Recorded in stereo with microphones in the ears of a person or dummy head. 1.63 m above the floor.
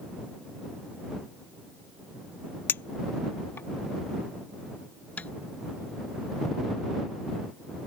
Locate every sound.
2.7 s a clink: 10° left (ahead or behind)
5.2 s tapping: 10° left (ahead or behind)